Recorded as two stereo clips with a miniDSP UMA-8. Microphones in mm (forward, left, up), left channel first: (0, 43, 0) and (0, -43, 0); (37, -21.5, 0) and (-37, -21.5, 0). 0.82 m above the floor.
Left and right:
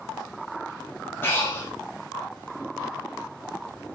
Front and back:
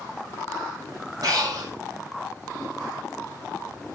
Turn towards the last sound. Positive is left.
turn(degrees=150)